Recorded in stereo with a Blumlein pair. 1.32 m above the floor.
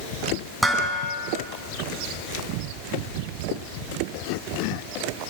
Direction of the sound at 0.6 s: Straight ahead.